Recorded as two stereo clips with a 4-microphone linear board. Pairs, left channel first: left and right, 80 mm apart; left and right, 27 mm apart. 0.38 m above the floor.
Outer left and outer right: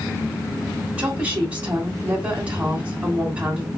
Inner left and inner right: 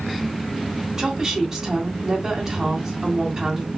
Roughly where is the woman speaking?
Centre.